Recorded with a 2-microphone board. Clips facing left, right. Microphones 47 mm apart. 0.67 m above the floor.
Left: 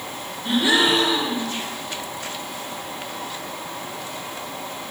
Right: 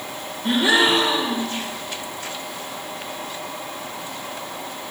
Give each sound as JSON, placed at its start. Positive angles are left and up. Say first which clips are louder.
{"t": 0.4, "sound": "a gasp", "louder": "right 1 dB", "side_deg": -30, "distance_m": 2.5}